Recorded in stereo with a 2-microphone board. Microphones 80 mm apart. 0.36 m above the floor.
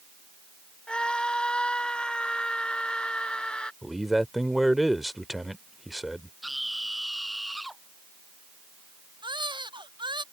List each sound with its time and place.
0.9 s a scream: 10° left (ahead or behind)
3.8 s a man speaking: centre (ahead or behind)
6.4 s a scream: centre (ahead or behind)
9.2 s a baby crying: 75° right (ahead or behind)